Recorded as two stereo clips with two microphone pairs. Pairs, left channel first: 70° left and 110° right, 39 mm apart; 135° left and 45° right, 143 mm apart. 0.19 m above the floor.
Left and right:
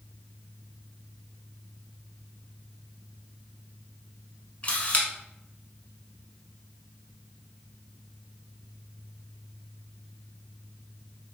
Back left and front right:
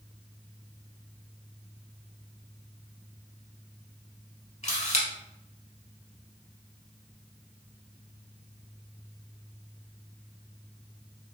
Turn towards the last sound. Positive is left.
turn(degrees=115)